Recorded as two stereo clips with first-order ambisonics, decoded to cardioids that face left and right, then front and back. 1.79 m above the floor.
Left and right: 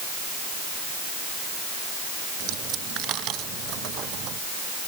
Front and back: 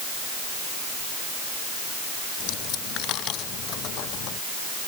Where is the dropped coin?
45° right.